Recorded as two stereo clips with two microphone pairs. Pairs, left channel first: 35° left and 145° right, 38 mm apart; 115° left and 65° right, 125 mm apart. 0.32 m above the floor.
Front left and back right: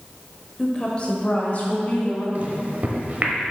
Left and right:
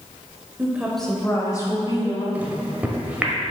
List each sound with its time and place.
0.6 s a woman speaking: 20° right, 0.9 m; by 2.2 s 75° left, 1.9 m
2.4 s a microwave: 140° right, 0.9 m